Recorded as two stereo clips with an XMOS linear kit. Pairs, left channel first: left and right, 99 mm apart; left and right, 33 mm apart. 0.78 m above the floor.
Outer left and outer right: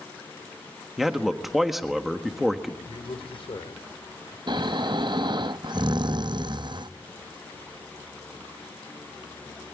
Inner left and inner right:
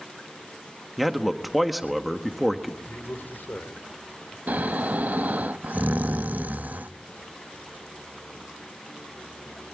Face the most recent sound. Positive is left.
turn(degrees=-50)  # may be behind; listen again after turning